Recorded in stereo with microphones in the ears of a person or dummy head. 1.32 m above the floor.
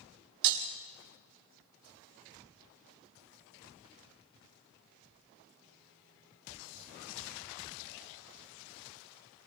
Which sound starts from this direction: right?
Breaking glass, at 0.4 s.